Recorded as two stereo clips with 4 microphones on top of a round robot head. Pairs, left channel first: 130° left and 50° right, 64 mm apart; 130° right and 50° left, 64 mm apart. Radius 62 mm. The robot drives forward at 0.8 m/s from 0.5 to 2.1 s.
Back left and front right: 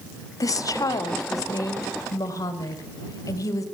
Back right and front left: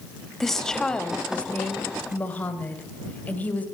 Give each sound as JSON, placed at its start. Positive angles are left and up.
{"t": 0.4, "sound": "a woman speaking", "azimuth_deg": 145, "distance_m": 1.3}